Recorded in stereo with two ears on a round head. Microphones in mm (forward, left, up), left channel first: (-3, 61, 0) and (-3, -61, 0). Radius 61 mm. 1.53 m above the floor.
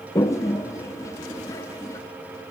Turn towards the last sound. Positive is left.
turn(degrees=20)  # may be behind; listen again after turning